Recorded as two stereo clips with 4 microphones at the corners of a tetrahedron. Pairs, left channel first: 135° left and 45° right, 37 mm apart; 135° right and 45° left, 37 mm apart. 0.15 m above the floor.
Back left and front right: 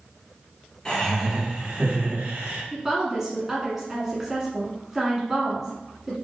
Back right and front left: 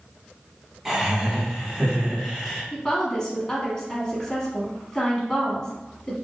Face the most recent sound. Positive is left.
turn(degrees=-100)